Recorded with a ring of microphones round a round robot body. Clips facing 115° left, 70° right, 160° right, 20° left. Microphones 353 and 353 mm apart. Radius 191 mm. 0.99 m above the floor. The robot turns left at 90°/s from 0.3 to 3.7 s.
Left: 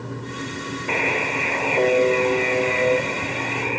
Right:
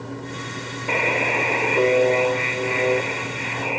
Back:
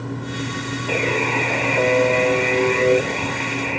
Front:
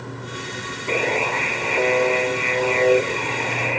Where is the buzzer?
60° right; by 3.8 s 45° left.